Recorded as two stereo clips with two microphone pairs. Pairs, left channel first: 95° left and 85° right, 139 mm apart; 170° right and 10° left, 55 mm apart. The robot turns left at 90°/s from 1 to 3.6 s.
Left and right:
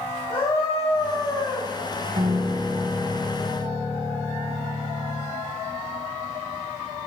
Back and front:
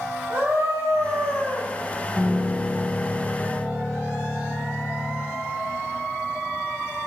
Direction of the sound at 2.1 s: 60° right.